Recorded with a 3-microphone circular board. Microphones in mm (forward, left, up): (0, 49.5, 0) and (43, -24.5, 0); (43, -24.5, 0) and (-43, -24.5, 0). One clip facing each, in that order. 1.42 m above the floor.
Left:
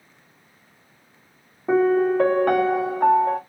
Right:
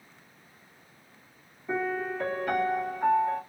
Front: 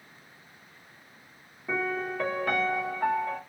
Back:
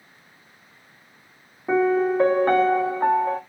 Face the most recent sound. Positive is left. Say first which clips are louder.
# left 13 dB, back 11 dB
turn(degrees=135)